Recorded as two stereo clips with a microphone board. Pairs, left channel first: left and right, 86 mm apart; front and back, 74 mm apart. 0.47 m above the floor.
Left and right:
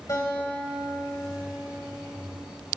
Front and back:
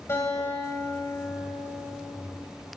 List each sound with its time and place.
0.1 s a guitar: 45° left, 3 m